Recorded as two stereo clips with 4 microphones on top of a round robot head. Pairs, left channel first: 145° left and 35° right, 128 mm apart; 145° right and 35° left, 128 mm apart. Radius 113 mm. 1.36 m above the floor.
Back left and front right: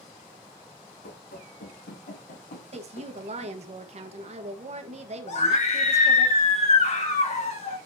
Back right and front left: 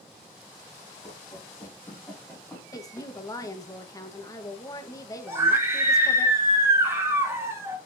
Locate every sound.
1.0 s running footsteps: 145° left, 5 m; by 3.6 s 125° left, 4 m
2.7 s a woman speaking: 80° right, 1.5 m
5.3 s a scream: 110° left, 4.5 m